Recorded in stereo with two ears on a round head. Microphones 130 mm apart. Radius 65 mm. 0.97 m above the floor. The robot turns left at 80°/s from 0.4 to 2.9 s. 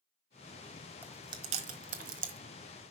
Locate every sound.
1.0 s chewing: 10° right (ahead or behind), 1.3 m; by 2.4 s 50° right (ahead or behind), 1.3 m